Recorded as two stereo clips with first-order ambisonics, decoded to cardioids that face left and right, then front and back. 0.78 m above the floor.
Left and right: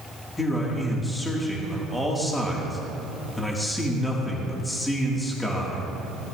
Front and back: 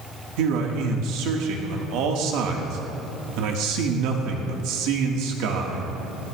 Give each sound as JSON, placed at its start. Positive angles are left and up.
{"t": 0.4, "sound": "a man speaking", "azimuth_deg": 170, "distance_m": 1.7}